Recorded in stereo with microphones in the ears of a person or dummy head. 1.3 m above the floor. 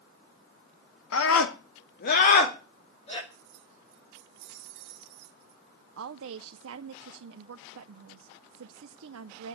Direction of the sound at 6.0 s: 85° right.